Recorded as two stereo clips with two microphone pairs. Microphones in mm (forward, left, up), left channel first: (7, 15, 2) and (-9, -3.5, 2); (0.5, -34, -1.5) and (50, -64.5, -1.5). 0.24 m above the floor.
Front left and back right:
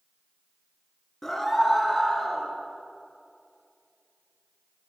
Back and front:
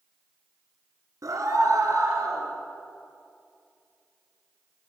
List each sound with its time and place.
1.2 s a scream: 25° right, 3.5 m; by 2.5 s 30° right, 5 m